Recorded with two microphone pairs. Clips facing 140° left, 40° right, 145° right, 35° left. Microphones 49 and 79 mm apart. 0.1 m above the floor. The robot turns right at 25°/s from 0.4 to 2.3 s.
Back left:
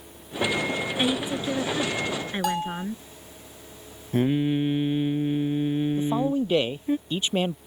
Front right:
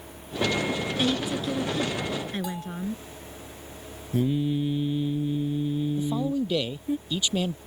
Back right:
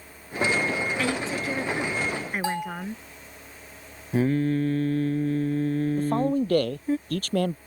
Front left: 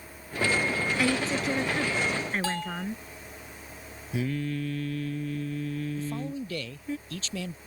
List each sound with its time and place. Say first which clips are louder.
1.0 s a woman speaking: back left 1 dB, front left 1 dB; 120° left; by 3.0 s 150° left
2.4 s a bell: back left 7 dB, back right 3 dB; 145° left
4.1 s singing: back left 3 dB, back right 8 dB; 175° left
6.0 s a man speaking: back left 3 dB, back right 10 dB; 170° right